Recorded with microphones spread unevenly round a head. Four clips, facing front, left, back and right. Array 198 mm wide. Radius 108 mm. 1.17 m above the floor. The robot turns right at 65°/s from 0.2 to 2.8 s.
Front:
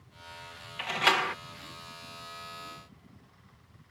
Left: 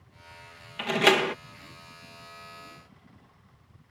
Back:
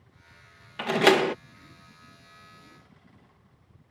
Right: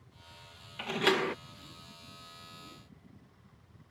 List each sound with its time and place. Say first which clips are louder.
0.8 s a door slam: left 6 dB, back 7 dB; 150° left; by 1.4 s 175° right